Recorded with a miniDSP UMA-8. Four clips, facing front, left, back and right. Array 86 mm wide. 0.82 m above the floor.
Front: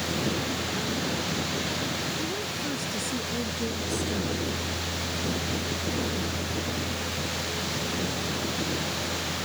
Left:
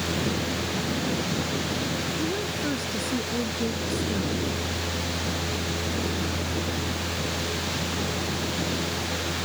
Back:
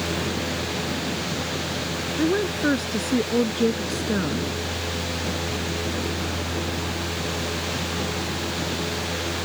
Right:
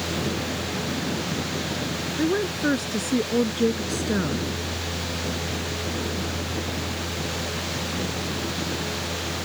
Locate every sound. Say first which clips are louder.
2.2 s a woman speaking: right 10 dB, back 10 dB; 145° right; by 4.5 s 135° right